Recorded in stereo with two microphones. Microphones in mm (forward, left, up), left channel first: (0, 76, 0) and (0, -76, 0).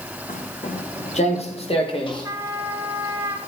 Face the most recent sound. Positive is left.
turn(degrees=-20)  # may be behind; listen again after turning